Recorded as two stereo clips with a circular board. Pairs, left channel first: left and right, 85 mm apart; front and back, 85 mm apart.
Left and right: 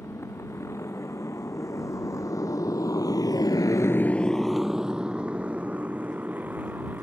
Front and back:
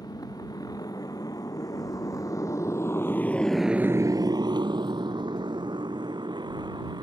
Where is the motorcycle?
35° left; by 7.0 s 155° right.